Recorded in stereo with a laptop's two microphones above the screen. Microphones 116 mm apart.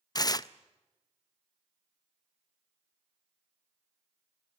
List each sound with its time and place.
0.1 s tearing paper: 35° left (ahead or behind), 0.5 m